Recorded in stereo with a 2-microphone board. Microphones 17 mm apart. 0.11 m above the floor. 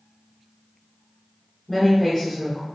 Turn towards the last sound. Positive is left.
turn(degrees=25)  # may be behind; listen again after turning